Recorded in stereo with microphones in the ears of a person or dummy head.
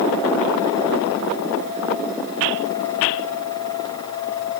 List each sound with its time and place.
Only background noise.